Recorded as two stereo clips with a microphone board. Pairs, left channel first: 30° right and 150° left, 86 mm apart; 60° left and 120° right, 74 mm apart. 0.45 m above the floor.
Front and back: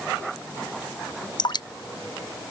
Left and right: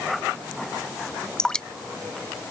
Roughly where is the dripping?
Ahead.